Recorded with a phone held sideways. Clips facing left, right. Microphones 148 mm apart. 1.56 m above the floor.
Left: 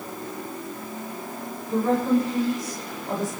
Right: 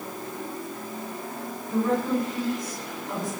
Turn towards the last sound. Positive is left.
turn(degrees=45)  # may be behind; listen again after turning